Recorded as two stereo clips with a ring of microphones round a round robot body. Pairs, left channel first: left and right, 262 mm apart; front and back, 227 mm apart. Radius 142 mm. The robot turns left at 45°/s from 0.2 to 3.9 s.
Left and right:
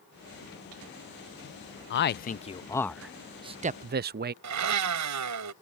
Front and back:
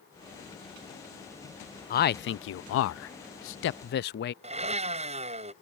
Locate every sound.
1.9 s a man speaking: 50° left; by 4.3 s 40° right
4.4 s a blender: 115° right